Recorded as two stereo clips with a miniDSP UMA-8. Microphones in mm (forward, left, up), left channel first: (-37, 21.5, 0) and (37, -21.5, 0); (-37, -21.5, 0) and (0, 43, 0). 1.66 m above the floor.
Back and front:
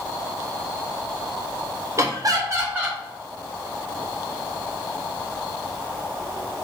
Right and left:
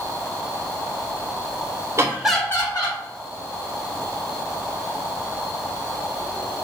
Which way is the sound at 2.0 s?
20° left.